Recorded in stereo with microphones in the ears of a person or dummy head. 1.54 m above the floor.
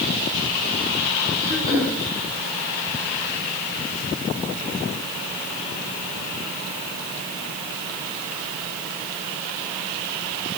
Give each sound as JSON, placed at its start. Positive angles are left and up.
{"t": 1.4, "sound": "throat clearing", "side_deg": 30, "distance_m": 6.0}